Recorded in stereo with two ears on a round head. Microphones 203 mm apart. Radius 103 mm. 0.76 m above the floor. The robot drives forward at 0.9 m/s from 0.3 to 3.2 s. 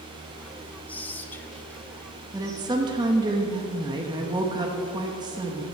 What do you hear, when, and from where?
0.9 s whispering: 5° left (ahead or behind), 0.8 m
2.3 s a woman speaking: 15° right (ahead or behind), 1.1 m; by 5.7 s 20° right (ahead or behind), 0.9 m